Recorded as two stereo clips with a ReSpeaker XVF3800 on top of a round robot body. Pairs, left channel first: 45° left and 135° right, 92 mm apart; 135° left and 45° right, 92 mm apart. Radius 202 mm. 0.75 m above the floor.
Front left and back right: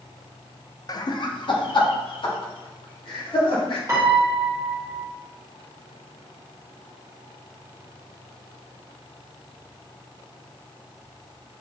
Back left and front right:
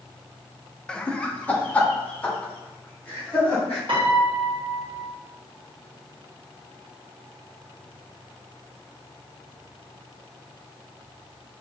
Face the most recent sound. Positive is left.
turn(degrees=-75)